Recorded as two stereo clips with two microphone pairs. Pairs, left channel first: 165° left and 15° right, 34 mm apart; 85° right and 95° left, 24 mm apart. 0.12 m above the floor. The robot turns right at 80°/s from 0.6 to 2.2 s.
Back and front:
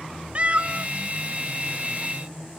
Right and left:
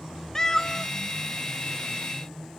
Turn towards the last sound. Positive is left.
turn(degrees=105)